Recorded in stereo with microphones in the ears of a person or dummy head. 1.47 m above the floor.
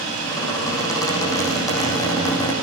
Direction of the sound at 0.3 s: 15° left (ahead or behind).